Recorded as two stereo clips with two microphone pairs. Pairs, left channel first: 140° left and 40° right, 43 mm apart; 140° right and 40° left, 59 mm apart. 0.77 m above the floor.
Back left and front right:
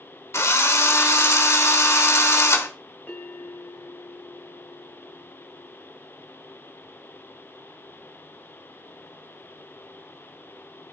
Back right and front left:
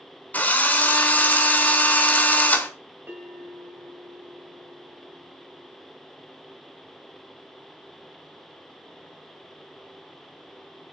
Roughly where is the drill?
Behind left.